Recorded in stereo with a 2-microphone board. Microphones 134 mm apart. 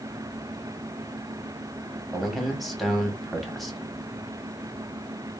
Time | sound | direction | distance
2.1 | a man speaking | centre (ahead or behind) | 0.8 m